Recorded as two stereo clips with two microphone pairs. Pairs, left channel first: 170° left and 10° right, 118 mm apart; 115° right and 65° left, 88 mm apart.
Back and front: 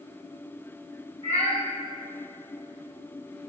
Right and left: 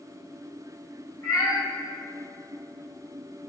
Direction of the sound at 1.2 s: 160° right.